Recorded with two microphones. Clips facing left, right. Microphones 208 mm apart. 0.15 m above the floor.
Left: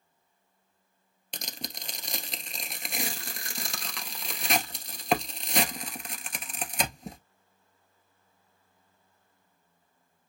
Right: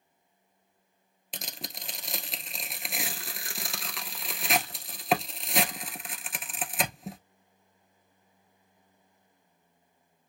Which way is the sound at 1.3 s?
Centre (ahead or behind).